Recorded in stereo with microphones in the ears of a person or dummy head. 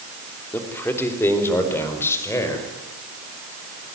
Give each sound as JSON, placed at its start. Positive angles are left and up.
{"t": 0.5, "sound": "a man speaking", "side_deg": 10, "distance_m": 3.0}